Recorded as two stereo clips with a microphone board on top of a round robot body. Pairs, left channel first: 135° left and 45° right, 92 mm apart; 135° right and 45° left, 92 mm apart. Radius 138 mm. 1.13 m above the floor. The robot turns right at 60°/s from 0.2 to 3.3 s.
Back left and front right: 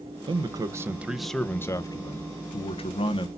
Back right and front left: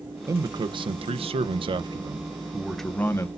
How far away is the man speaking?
About 1.0 m.